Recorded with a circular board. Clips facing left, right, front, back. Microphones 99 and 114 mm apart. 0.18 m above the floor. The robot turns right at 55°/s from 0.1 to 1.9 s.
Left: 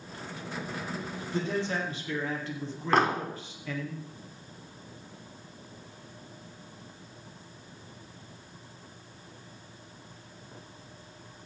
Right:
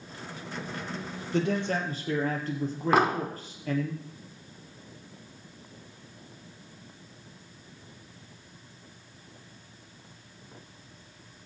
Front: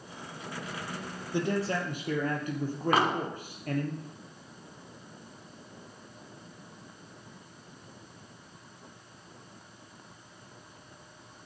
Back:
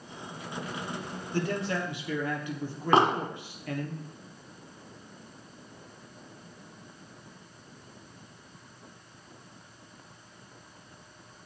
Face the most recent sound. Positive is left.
turn(degrees=-160)